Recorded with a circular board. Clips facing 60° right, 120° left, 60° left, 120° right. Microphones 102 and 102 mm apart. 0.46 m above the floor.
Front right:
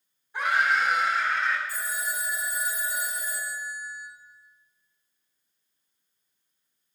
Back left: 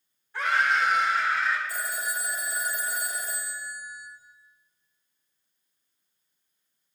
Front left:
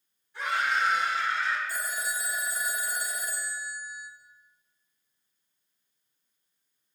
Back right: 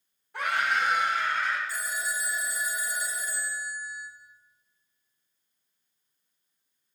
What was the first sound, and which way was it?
A scream, 135° right.